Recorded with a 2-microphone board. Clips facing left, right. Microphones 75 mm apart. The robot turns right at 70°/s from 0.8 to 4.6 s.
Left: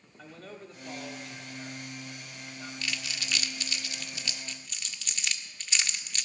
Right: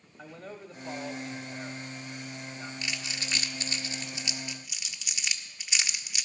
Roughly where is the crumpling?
Centre.